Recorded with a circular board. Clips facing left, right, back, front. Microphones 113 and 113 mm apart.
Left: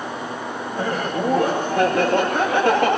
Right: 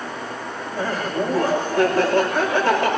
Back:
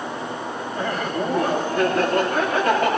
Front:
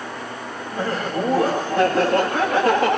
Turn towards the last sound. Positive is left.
turn(degrees=55)